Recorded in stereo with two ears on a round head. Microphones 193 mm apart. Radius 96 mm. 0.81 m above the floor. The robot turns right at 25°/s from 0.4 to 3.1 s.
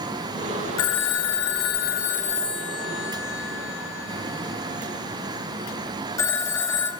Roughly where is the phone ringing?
Left.